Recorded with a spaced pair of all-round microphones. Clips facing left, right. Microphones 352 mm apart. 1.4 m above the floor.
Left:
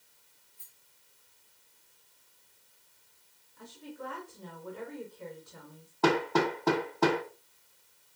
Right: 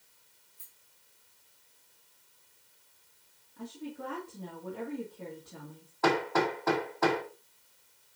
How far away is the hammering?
About 1.4 m.